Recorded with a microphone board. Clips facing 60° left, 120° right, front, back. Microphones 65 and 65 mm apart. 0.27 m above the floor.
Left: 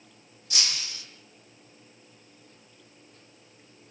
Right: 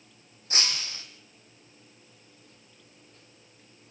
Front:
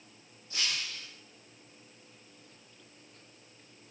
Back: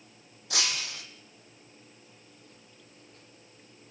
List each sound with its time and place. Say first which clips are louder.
0.5 s breaking glass: right 2 dB, back 3 dB; 175° right, 3.5 m